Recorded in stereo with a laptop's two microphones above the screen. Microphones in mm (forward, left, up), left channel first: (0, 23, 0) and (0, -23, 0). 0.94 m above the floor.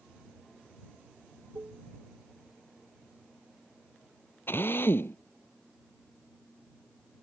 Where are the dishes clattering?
70° right (ahead or behind).